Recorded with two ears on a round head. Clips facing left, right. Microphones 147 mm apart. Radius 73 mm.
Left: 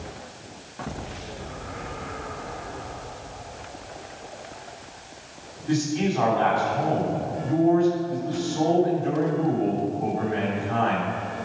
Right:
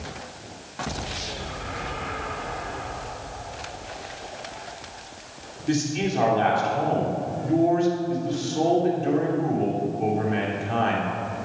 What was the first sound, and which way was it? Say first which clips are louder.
A man speaking: left 1 dB; 30° right (ahead or behind).